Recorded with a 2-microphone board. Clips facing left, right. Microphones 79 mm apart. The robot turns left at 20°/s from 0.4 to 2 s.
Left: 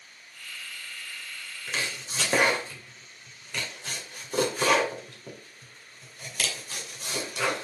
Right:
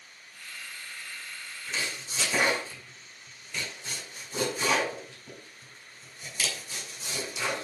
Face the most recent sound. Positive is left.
turn(degrees=65)  # may be behind; listen again after turning